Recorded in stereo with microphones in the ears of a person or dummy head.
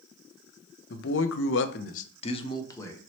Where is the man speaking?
65° left (ahead or behind), 0.6 m; by 3.0 s 10° left (ahead or behind), 0.9 m.